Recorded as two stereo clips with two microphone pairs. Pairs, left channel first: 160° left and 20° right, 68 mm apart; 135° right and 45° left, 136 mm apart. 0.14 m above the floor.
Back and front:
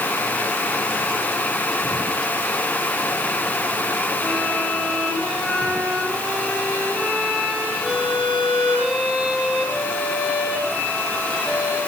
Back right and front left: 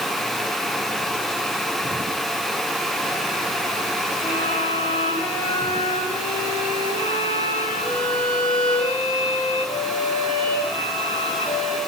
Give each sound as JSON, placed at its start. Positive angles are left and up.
{"t": 4.2, "sound": "a violin", "azimuth_deg": -100, "distance_m": 7.5}